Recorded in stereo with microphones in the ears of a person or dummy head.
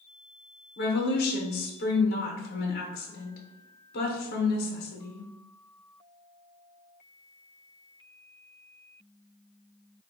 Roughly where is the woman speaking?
Left.